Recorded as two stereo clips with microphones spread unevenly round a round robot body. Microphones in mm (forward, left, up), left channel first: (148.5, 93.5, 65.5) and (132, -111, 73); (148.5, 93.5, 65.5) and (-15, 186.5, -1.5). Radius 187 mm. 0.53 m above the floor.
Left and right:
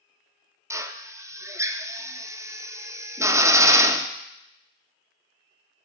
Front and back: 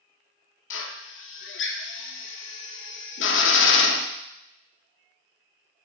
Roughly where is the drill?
Ahead.